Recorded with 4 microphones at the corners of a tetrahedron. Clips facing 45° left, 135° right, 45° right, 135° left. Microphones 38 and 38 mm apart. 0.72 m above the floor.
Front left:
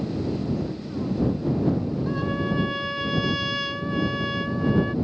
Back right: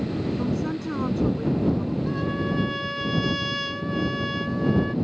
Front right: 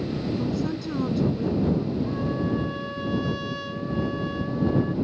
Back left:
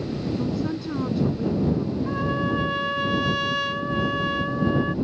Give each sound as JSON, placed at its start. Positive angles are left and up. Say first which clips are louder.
{"t": 0.4, "sound": "a woman speaking", "louder": "back right 2 dB, back left 1 dB", "azimuth_deg": -145}
{"t": 2.1, "sound": "a trumpet", "louder": "even, back left 2 dB", "azimuth_deg": 130}